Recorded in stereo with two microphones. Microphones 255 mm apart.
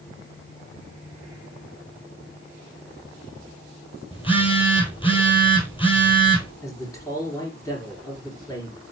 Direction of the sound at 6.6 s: 10° left (ahead or behind).